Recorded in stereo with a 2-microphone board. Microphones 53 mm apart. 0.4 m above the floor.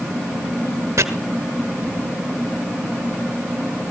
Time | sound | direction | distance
1.0 | chopping | 80° right | 1.5 m